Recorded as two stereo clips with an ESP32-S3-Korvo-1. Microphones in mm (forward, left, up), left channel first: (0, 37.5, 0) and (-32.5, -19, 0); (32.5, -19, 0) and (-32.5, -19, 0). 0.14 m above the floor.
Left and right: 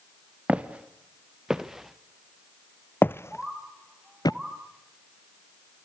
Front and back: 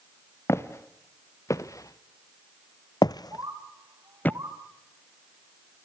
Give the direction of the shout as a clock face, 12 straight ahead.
No shout in this recording.